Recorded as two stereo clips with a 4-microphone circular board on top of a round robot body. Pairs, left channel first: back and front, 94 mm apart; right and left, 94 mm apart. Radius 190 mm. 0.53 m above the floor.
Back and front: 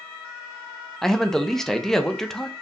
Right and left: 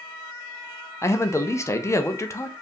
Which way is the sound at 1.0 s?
100° right.